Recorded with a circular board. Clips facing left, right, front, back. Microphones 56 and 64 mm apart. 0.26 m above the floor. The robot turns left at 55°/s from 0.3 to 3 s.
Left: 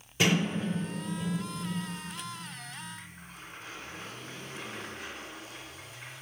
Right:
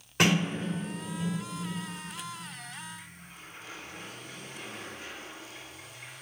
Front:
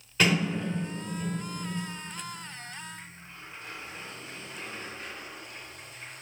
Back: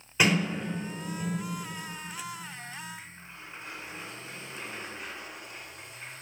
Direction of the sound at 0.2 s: 110° right.